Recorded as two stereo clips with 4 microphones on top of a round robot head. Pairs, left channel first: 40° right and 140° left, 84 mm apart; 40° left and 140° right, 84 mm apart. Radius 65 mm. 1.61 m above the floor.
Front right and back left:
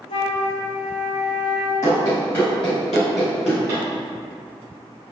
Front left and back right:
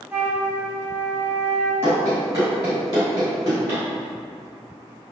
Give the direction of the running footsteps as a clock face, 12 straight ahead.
3 o'clock.